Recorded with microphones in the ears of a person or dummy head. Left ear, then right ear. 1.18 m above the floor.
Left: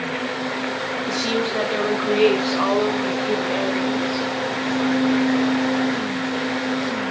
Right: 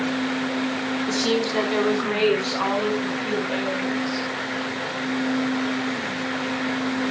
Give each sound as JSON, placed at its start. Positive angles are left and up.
{"t": 1.1, "sound": "a woman speaking", "side_deg": -15, "distance_m": 2.0}